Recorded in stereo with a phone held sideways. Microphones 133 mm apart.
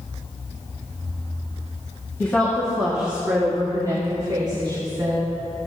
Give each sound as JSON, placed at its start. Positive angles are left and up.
{"t": 2.2, "sound": "a woman speaking", "side_deg": 15, "distance_m": 1.5}